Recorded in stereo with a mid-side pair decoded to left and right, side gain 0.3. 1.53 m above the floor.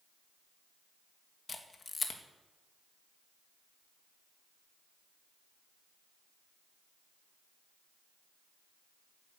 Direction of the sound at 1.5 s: 50° left.